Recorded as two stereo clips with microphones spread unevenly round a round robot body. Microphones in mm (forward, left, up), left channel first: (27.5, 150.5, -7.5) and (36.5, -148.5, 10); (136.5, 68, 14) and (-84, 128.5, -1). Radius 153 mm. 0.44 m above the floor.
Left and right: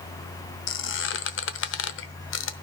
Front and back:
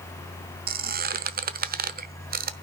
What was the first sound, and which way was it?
A squeak, 130° left.